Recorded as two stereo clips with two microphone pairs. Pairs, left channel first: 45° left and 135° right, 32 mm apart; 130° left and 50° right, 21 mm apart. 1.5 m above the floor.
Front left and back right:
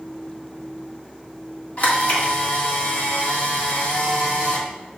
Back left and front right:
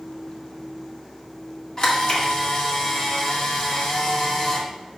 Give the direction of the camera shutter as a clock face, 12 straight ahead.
9 o'clock.